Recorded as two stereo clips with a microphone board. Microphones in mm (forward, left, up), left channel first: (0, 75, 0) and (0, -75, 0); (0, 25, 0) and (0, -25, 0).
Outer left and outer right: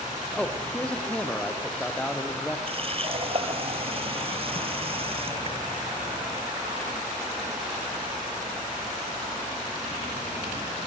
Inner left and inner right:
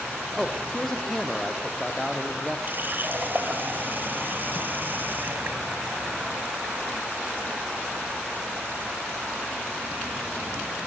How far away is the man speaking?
About 3.5 m.